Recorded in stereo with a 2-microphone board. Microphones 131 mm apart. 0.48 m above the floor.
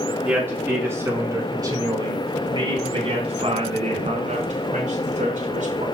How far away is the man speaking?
About 5 m.